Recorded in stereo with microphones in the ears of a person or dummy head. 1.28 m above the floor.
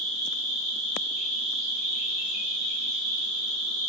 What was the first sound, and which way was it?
An insect, 55° right (ahead or behind).